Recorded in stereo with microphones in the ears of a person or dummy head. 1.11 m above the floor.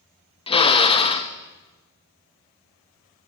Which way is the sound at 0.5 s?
35° left (ahead or behind).